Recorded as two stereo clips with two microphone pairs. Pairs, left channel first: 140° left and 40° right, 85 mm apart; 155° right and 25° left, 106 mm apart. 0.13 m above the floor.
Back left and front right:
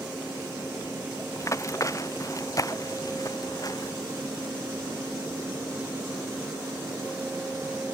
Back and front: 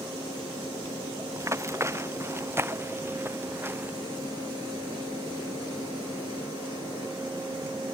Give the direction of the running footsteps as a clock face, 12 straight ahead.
9 o'clock.